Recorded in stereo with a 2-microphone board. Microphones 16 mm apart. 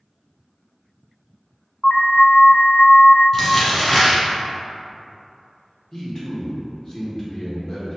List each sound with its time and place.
1.8 s an alarm: 55° left (ahead or behind), 0.8 m
3.3 s crumpling: 20° left (ahead or behind), 1.6 m
5.9 s a man speaking: 35° left (ahead or behind), 1.1 m